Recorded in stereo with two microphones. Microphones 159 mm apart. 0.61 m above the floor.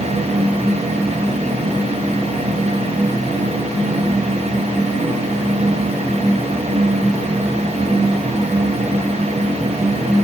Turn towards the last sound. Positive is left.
No sound to turn to.